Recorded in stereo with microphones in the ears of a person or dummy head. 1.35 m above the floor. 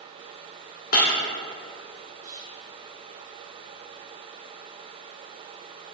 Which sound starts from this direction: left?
Breaking glass, at 0.9 s.